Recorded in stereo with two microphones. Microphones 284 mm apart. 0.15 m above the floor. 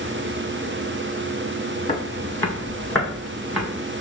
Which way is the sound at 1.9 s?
20° left (ahead or behind).